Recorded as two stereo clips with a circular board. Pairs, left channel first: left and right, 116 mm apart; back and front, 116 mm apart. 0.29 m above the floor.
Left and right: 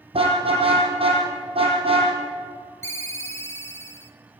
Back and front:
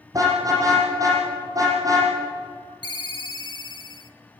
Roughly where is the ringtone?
Behind left.